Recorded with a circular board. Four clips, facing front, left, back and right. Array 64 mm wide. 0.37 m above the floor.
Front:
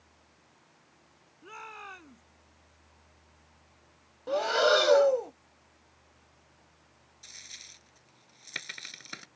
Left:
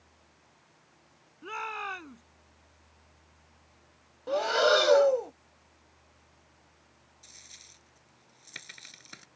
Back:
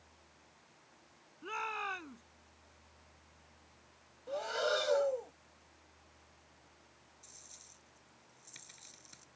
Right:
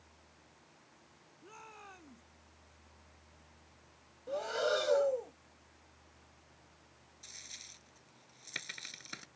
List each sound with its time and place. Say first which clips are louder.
1.4 s a shout: left 17 dB, back 5 dB; 115° left
4.3 s breathing: left 9 dB, front 10 dB; 45° left
7.2 s a dropped coin: right 3 dB, front 9 dB; 10° right